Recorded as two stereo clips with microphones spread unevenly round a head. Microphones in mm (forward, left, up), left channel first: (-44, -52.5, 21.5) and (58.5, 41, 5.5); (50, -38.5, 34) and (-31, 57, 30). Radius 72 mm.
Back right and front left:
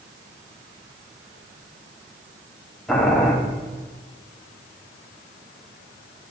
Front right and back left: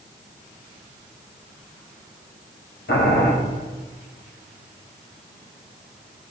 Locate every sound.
2.9 s boiling: 50° right, 1.8 m